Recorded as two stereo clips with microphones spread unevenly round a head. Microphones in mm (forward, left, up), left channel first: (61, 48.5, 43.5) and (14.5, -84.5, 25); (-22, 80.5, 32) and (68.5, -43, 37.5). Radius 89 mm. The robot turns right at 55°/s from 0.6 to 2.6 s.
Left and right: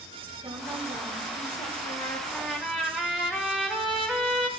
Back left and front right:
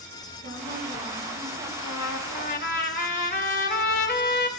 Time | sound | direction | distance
0.4 | a woman speaking | 50° right | 9 m
1.8 | a trumpet | 110° left | 1.0 m